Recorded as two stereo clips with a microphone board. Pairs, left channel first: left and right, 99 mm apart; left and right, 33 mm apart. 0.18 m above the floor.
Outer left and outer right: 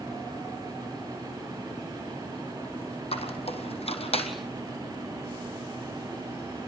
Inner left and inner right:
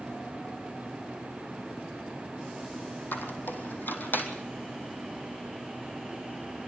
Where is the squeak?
85° left, 3 m.